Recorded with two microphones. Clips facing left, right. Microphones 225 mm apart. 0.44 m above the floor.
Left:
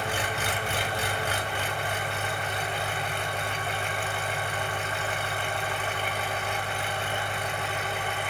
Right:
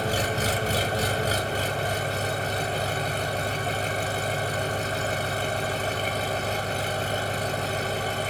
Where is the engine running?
40° right (ahead or behind), 0.9 m.